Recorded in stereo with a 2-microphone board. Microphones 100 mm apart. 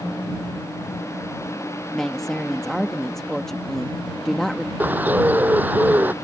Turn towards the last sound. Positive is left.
turn(degrees=-20)  # may be behind; listen again after turning